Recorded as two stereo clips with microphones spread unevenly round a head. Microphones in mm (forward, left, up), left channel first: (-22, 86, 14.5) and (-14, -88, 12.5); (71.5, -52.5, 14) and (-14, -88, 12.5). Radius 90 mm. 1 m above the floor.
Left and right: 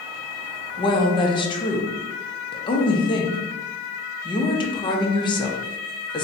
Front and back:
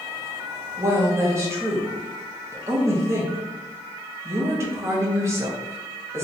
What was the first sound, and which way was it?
A woman speaking, 150° left.